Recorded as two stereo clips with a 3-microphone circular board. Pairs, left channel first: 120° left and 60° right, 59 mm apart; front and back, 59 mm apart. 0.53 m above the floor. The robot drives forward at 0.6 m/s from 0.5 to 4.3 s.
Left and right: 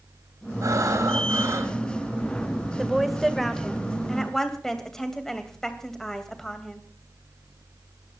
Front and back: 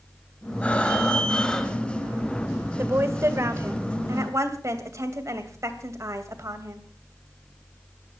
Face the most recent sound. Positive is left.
turn(degrees=-155)